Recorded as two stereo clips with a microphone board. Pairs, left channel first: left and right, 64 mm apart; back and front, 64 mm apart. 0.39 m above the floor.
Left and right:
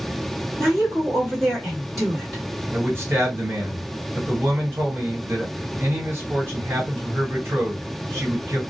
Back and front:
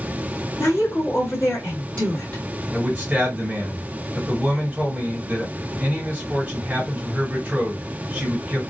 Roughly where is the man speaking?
Ahead right.